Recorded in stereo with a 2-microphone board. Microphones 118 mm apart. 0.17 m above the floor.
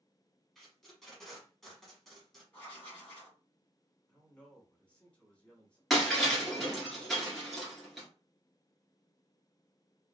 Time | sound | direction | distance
0.6 | tape being pulled | 5° left (ahead or behind) | 1.2 m
2.5 | writing | 15° left (ahead or behind) | 1.5 m
4.1 | a man speaking | 10° left (ahead or behind) | 1.0 m
5.9 | breaking glass | centre (ahead or behind) | 1.5 m